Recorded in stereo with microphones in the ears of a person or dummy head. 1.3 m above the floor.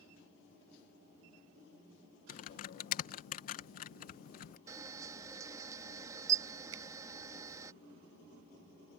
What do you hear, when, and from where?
2.3 s typing on a keyboard: 50° left (ahead or behind)
4.7 s a camera shutter: 20° right (ahead or behind)
6.7 s a finger snap: 85° right